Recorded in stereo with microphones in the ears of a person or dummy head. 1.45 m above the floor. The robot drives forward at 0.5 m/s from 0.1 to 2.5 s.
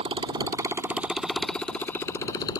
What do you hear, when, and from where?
0.0 s a motorcycle: 30° right (ahead or behind); by 2.6 s 25° left (ahead or behind)